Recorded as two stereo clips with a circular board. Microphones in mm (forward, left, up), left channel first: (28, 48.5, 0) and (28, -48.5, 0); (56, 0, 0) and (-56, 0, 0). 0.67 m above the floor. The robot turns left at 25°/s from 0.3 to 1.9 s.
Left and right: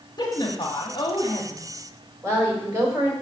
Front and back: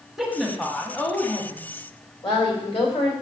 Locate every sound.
0.2 s a woman speaking: 95° left, 1.0 m; by 1.9 s 55° left, 1.0 m
2.2 s a woman speaking: 30° right, 2.5 m